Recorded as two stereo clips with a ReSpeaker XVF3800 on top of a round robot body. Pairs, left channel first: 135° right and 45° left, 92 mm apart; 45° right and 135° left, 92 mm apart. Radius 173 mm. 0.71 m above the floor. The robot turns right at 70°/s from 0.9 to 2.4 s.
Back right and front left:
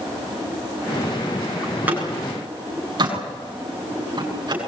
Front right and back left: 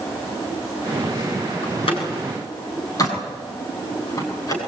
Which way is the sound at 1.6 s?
50° right.